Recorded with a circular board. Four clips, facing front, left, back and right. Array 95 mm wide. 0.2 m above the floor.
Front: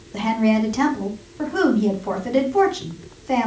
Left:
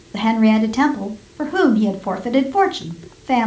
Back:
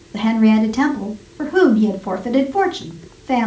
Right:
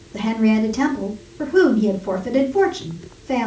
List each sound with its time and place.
0.1 s a woman speaking: 100° left, 1.7 m